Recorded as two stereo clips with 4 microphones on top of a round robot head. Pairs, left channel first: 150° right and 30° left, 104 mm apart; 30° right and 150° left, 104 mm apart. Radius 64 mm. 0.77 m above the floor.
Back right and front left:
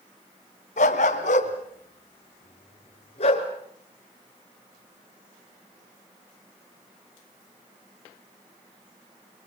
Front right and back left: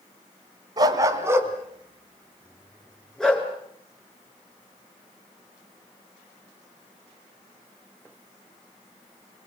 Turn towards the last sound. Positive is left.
turn(degrees=-115)